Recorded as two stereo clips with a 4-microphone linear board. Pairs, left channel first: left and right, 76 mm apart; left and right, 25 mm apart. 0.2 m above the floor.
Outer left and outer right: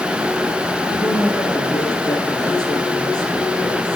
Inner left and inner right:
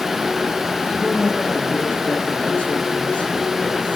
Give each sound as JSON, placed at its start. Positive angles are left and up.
{"t": 0.9, "sound": "a woman speaking", "side_deg": 65, "distance_m": 6.5}